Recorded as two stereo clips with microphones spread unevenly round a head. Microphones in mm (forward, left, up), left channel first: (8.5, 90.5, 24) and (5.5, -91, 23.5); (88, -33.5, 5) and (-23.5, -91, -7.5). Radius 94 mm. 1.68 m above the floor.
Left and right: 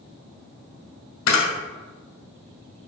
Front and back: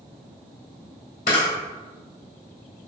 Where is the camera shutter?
75° left, 1.9 m.